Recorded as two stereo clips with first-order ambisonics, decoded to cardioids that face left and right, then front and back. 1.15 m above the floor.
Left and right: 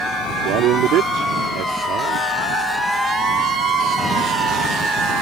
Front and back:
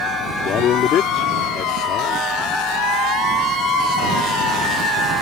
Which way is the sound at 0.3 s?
50° right.